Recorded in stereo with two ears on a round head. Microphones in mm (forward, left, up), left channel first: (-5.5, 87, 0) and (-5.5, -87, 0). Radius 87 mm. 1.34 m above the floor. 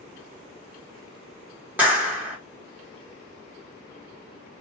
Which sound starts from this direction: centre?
A clap, at 1.8 s.